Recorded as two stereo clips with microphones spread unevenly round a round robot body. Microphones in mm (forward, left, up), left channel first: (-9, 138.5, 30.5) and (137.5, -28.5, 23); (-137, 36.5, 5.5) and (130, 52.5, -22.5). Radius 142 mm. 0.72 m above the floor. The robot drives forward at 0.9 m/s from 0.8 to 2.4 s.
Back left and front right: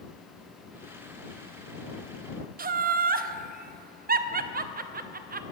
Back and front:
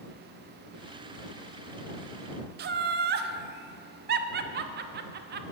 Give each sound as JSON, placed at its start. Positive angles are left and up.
{"t": 2.6, "sound": "laughter", "azimuth_deg": -25, "distance_m": 0.6}